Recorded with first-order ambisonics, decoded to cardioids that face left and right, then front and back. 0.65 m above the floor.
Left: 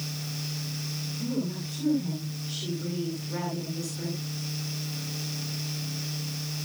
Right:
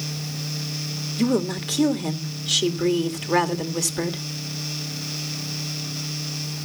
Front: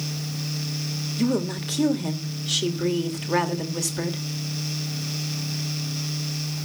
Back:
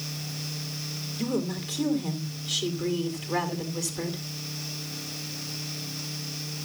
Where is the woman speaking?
65° right, 2.5 m.